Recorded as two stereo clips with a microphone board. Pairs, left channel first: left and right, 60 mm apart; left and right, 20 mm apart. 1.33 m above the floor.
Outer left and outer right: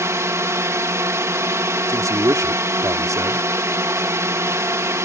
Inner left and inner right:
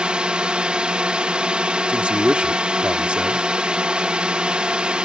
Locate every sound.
0.0 s a drone: 55° right (ahead or behind)
1.9 s a man speaking: 70° right (ahead or behind)